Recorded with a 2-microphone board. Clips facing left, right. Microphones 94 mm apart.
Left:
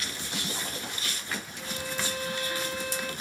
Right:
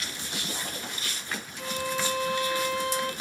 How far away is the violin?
About 2.0 m.